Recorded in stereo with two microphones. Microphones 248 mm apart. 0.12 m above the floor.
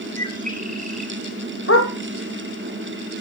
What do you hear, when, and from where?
0.2 s a bird: 35° right (ahead or behind), 1.9 m
1.7 s a dog barking: 65° left (ahead or behind), 2.5 m